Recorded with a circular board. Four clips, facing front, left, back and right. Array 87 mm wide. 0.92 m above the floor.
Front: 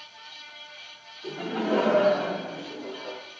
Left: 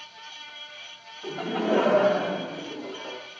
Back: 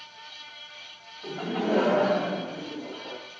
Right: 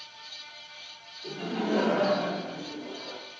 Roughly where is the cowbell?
I don't hear a cowbell.